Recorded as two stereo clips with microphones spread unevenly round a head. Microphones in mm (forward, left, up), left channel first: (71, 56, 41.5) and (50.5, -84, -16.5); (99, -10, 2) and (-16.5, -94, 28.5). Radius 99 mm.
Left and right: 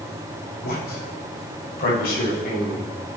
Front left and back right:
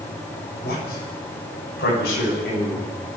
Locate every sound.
0.6 s a man speaking: 70° left, 7.5 m; by 2.9 s 65° left, 10 m